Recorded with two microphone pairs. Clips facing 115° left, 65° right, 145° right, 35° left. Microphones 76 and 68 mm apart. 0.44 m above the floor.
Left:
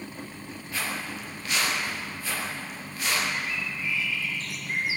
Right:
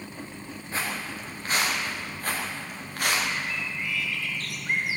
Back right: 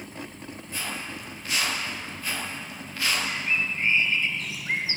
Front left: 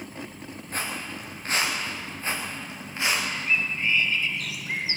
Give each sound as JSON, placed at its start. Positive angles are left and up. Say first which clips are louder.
{"t": 0.7, "sound": "footsteps", "louder": "right 1 dB, front left 2 dB", "azimuth_deg": -5, "distance_m": 8.5}
{"t": 3.3, "sound": "a bird", "louder": "even, front left 1 dB", "azimuth_deg": -85, "distance_m": 3.0}